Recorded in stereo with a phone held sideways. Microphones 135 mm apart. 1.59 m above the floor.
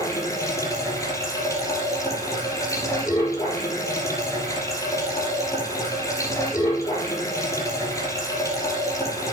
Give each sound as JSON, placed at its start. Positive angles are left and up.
{"t": 0.0, "sound": "running water", "side_deg": 25, "distance_m": 4.5}